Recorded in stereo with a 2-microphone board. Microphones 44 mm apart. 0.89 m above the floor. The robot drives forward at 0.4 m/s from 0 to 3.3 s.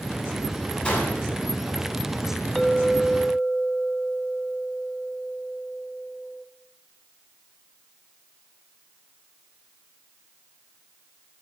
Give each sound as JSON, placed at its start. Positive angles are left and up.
{"t": 0.8, "sound": "a gunshot", "side_deg": 25, "distance_m": 7.0}
{"t": 2.5, "sound": "a clink", "side_deg": 0, "distance_m": 0.8}